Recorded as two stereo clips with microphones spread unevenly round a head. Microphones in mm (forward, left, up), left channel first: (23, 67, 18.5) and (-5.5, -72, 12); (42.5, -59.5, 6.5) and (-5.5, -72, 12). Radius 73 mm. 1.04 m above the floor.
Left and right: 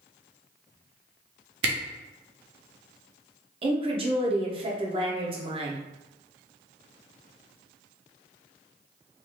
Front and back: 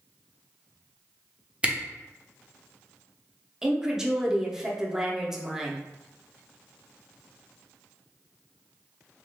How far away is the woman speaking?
About 0.7 m.